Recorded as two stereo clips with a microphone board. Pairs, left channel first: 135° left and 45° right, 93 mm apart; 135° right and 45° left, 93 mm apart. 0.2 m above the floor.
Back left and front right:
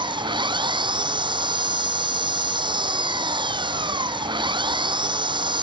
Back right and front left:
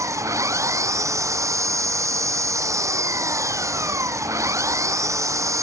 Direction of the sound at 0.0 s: 10° right.